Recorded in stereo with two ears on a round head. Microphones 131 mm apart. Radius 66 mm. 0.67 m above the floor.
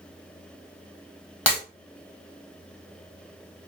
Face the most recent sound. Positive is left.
turn(degrees=10)  # may be behind; listen again after turning